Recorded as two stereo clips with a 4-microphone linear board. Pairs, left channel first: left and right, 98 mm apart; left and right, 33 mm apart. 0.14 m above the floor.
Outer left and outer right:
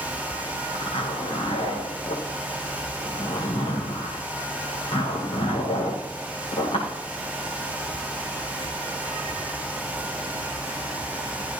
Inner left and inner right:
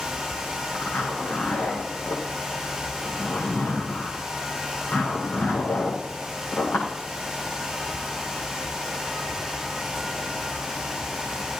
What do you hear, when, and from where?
0.7 s a zipper: 80° left, 8 m